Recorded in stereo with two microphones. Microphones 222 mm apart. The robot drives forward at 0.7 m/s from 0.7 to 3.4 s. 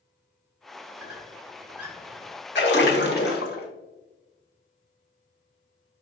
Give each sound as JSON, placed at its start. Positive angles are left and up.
{"t": 1.0, "sound": "a squeak", "side_deg": -80, "distance_m": 2.0}
{"t": 2.5, "sound": "a splash", "side_deg": 50, "distance_m": 1.0}